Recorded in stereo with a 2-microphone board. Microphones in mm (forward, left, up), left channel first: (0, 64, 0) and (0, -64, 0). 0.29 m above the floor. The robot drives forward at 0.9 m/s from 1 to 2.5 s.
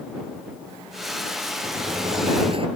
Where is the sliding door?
35° right (ahead or behind); by 2.7 s 45° right (ahead or behind).